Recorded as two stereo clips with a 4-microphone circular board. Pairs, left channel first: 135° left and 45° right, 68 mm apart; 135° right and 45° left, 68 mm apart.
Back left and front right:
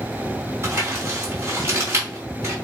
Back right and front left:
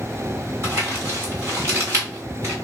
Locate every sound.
0.6 s crumpling: straight ahead, 3 m